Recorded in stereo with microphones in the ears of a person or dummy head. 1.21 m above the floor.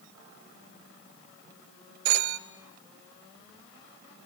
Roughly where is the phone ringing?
Right.